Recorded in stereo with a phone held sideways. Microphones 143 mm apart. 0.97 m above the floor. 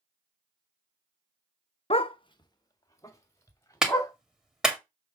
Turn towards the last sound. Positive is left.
turn(degrees=-5)  # may be behind; listen again after turning